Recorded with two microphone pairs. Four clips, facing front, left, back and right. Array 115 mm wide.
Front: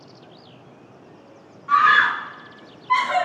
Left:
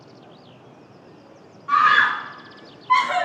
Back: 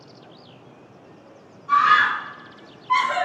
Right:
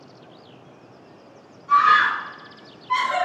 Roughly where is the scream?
Ahead left.